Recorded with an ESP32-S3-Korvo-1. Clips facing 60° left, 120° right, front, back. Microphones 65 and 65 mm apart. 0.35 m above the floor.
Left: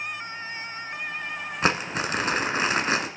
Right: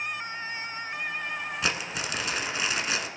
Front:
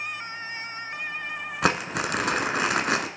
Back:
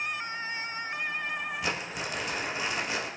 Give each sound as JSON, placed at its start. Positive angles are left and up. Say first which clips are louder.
{"t": 1.6, "sound": "crumpling", "louder": "left 9 dB, front 8 dB", "azimuth_deg": 10, "distance_m": 1.3}